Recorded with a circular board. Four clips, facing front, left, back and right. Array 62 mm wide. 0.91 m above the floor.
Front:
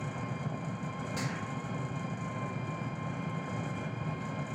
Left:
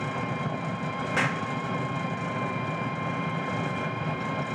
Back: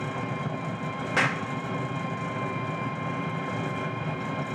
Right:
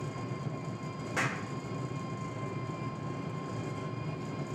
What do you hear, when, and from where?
0.0 s an engine running: 120° left, 1.4 m
1.2 s a clap: 155° left, 2.0 m